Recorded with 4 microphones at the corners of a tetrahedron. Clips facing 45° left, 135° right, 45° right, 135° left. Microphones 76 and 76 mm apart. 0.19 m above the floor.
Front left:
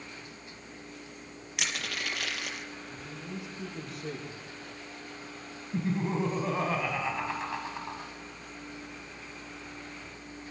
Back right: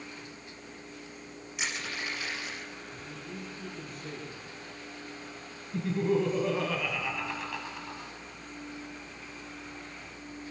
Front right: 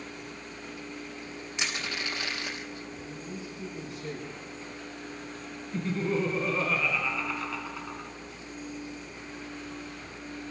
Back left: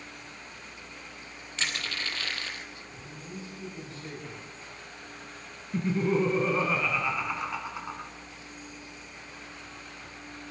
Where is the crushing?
30° left, 3.5 m.